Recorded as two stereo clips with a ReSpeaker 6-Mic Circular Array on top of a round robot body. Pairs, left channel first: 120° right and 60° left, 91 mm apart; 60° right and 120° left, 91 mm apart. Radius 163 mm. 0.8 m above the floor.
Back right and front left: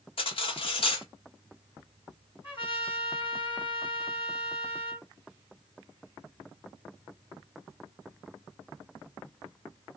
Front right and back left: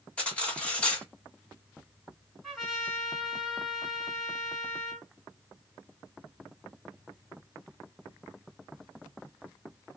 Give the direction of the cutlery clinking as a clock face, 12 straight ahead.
5 o'clock.